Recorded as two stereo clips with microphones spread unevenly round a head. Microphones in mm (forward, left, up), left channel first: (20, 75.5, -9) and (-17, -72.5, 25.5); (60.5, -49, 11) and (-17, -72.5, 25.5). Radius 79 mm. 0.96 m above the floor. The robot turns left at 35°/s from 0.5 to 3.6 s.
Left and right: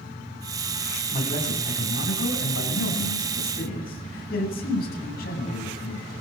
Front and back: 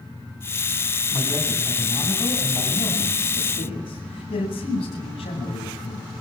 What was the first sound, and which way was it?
A man speaking, 130° left.